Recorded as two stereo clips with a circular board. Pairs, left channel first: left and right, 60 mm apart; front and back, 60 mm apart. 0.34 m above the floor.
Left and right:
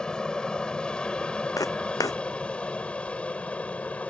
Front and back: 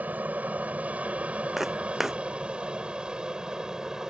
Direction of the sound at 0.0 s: 155° left.